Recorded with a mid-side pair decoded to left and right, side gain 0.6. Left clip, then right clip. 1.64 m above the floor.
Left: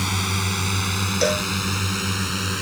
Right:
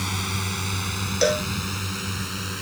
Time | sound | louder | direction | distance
0.0 | a drone | left 4 dB | 25° left | ?
1.2 | a cowbell | right 1 dB | straight ahead | ?